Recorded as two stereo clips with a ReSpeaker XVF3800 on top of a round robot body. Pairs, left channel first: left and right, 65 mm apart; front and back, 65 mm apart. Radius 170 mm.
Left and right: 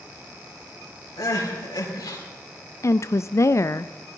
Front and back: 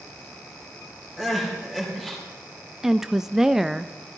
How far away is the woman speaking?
About 0.5 m.